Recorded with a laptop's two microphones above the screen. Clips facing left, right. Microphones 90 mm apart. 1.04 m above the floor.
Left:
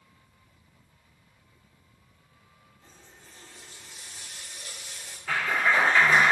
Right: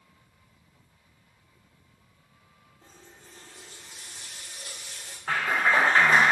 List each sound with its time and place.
2.8 s a running tap: 55° right (ahead or behind), 1.4 m
5.3 s a clap: 45° right (ahead or behind), 0.5 m